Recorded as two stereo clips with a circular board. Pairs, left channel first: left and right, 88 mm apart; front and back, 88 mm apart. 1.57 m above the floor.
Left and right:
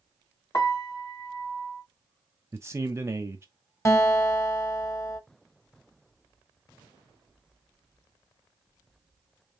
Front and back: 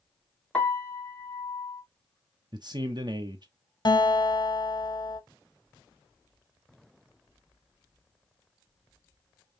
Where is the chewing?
I don't hear chewing.